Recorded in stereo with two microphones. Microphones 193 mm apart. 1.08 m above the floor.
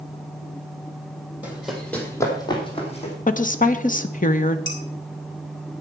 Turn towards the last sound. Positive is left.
turn(degrees=75)  # may be behind; listen again after turning